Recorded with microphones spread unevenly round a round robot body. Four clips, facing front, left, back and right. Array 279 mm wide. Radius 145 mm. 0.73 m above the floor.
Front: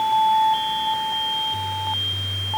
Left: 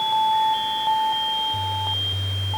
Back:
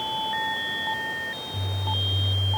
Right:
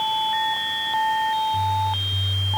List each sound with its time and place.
Only background noise.